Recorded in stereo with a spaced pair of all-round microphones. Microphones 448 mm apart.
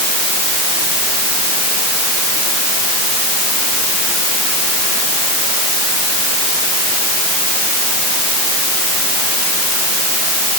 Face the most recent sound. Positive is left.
No sound to turn to.